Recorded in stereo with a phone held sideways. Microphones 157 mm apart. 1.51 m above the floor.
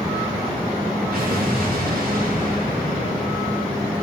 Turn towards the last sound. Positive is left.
turn(degrees=-75)  # may be behind; listen again after turning